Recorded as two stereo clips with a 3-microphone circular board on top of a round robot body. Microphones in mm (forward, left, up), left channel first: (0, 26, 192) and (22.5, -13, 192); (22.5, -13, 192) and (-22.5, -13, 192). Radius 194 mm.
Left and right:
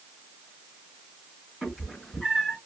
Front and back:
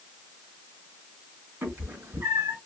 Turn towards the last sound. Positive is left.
turn(degrees=-145)